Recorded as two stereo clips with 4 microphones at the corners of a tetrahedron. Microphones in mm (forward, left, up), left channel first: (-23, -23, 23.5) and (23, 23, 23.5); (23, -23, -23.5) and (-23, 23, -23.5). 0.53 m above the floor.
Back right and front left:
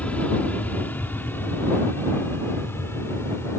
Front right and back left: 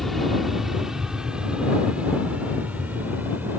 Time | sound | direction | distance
0.0 | an aircraft | 130° right | ?